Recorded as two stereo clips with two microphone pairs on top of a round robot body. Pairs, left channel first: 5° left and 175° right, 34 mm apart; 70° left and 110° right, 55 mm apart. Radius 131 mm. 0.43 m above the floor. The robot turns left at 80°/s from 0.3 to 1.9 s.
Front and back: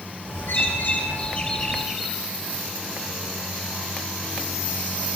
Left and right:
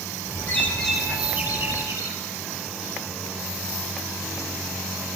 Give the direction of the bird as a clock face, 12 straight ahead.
11 o'clock.